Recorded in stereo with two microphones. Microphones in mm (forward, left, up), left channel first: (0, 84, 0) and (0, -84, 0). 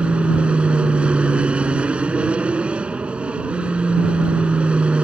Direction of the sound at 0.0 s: 5° right (ahead or behind).